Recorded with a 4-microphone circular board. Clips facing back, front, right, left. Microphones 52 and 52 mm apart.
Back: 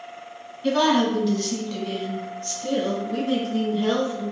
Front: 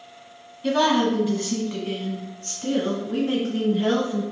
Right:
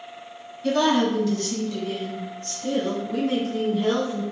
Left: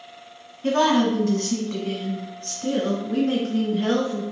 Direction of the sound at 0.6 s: 85° left.